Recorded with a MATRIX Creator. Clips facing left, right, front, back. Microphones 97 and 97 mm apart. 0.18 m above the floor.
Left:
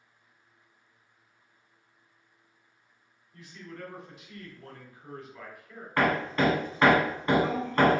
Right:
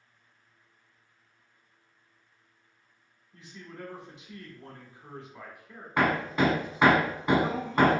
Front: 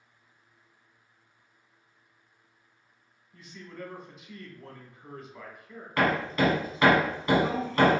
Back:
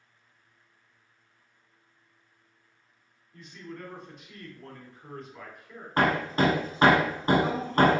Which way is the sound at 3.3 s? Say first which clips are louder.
Left 1 dB, back 1 dB; 75° right.